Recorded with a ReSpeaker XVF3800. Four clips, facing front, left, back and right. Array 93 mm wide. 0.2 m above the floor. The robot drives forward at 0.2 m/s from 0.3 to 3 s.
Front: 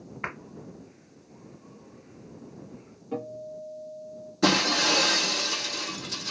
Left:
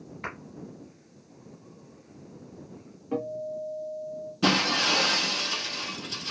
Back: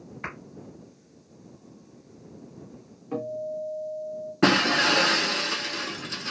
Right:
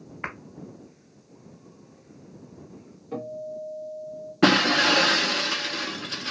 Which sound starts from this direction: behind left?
A guitar, at 3.1 s.